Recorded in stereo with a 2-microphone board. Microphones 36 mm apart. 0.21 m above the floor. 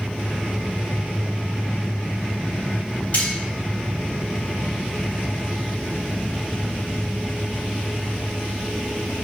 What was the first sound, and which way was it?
Cutlery clinking, 50° left (ahead or behind).